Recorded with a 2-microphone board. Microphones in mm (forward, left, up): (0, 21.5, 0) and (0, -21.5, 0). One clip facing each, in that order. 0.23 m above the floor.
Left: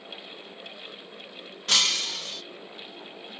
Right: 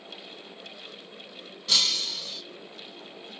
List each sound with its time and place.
1.7 s breaking glass: 55° left (ahead or behind), 0.5 m